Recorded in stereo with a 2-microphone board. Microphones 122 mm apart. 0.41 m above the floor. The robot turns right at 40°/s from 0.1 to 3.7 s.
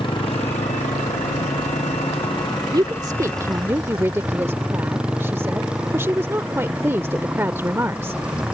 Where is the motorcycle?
45° left; by 8.5 s 175° right.